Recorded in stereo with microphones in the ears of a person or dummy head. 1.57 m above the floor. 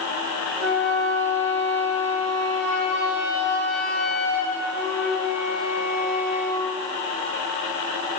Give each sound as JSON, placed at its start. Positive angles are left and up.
{"t": 0.6, "sound": "a flute", "side_deg": -70, "distance_m": 2.5}